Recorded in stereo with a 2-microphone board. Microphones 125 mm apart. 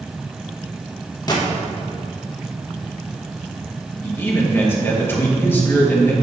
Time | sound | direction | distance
1.3 | a gunshot | 30° left (ahead or behind) | 1.2 m
4.0 | a man speaking | 15° left (ahead or behind) | 1.6 m